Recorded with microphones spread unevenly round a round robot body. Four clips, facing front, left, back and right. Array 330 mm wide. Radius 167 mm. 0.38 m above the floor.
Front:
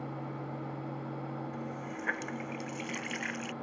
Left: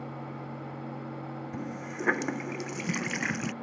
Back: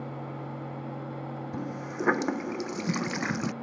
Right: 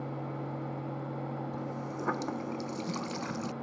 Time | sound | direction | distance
1.5 | a running tap | 160° left | ?